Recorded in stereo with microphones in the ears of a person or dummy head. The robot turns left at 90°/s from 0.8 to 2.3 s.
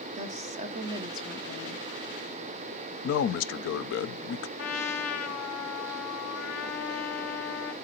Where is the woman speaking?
140° right, 0.8 m; by 1.9 s 125° left, 0.8 m.